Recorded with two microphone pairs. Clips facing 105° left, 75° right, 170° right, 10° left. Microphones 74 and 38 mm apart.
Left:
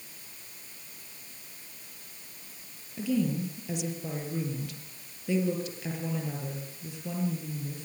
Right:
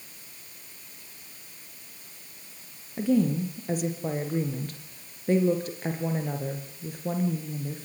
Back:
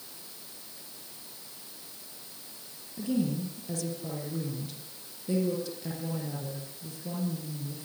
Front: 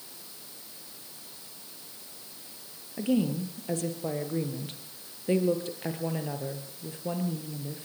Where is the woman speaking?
30° right, 4.5 m.